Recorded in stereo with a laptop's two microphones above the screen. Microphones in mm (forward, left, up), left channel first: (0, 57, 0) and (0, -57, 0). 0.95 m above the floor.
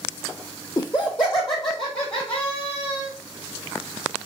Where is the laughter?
35° left (ahead or behind), 0.8 m; by 3.1 s 50° left (ahead or behind), 4 m.